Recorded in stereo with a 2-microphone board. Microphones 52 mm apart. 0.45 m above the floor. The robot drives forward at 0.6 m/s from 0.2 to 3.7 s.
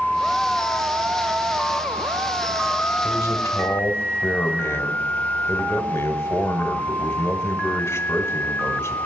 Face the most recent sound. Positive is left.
turn(degrees=55)  # may be behind; listen again after turning